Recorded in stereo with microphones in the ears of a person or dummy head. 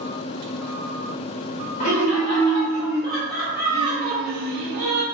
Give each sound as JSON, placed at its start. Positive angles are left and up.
{"t": 1.8, "sound": "laughter", "side_deg": 45, "distance_m": 1.1}